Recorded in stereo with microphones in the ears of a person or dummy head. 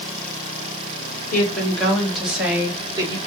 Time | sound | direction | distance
1.3 | a woman speaking | 10° left (ahead or behind) | 1.8 m